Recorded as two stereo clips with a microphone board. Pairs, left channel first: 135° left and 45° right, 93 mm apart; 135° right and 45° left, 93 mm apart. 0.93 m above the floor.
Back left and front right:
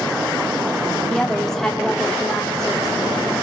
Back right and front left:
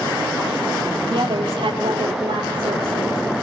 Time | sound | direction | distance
1.1 | a woman speaking | 50° left | 2 m